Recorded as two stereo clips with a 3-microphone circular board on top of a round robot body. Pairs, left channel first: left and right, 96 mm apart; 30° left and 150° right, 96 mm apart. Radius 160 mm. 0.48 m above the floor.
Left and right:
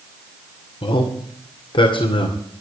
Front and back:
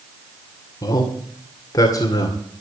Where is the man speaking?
75° left, 2.5 m.